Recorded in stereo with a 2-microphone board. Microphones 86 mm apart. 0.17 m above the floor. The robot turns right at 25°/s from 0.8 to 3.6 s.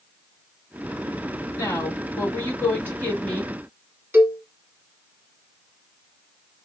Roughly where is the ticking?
No ticking in this recording.